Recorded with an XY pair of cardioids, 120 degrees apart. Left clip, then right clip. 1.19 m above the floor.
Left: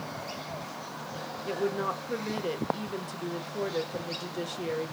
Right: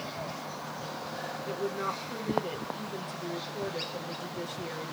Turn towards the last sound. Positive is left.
turn(degrees=35)